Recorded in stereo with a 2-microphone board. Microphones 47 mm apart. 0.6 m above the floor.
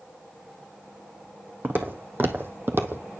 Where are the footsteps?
45° right (ahead or behind), 1.4 m.